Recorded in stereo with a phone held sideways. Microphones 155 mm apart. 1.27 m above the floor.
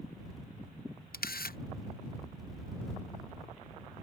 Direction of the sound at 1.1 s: 80° left.